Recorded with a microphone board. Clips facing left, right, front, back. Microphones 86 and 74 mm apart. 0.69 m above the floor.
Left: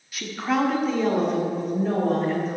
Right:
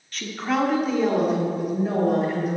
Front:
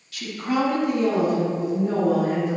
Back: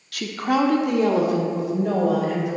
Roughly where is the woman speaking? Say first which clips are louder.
Even, back 3 dB; behind.